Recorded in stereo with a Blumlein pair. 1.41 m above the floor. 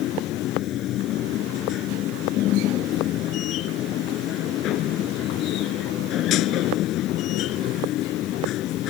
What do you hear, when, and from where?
0.0 s a machine running: 35° left